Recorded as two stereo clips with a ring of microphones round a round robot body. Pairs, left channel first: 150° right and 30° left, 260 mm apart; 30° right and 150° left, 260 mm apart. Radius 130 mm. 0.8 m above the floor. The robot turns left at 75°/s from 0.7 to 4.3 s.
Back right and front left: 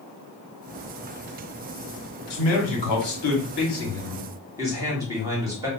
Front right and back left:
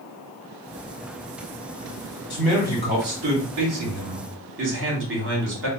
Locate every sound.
2.3 s a man speaking: 105° right, 1.7 m; by 5.7 s 105° left, 1.7 m